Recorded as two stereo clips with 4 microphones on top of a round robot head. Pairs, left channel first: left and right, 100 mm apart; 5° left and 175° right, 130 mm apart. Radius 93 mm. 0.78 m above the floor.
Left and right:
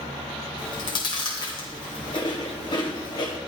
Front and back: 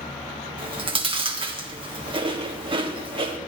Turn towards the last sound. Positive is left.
turn(degrees=135)